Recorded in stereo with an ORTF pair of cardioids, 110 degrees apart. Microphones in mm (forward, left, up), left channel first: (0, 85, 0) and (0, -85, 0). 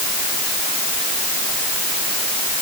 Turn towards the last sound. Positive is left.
No sound to turn to.